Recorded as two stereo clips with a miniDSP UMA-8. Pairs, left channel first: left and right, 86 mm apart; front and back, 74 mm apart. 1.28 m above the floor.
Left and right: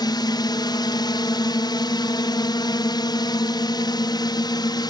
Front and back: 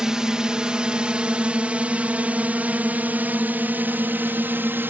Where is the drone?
100° left; by 4.9 s 120° left.